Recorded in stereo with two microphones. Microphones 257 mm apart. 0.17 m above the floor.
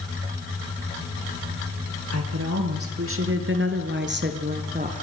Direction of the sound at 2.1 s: 70° right (ahead or behind).